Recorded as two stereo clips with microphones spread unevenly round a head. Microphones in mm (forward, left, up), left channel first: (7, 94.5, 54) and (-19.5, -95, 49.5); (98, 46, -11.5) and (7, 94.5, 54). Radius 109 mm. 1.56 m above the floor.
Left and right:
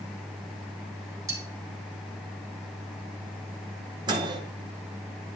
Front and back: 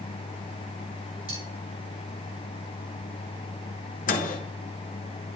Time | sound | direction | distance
1.3 | cutlery clinking | 175° right | 2.5 m
4.1 | a microwave | 30° right | 0.8 m